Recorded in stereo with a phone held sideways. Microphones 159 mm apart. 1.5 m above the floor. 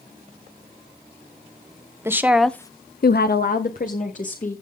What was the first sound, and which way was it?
A woman speaking, 15° right (ahead or behind).